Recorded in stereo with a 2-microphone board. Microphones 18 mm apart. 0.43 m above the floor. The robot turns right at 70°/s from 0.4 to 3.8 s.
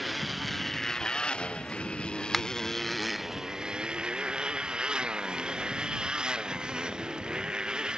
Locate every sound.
0.0 s a motorcycle: centre (ahead or behind); by 8.0 s 50° right (ahead or behind)
2.3 s a finger snap: 10° left (ahead or behind); by 2.5 s 5° left (ahead or behind)